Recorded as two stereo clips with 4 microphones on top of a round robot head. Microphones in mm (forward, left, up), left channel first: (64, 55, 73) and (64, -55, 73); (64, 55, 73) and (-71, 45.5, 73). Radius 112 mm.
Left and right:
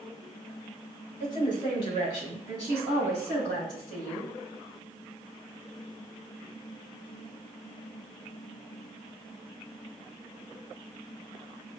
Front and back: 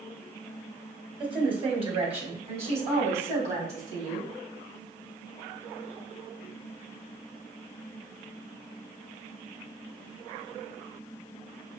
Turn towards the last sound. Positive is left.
turn(degrees=145)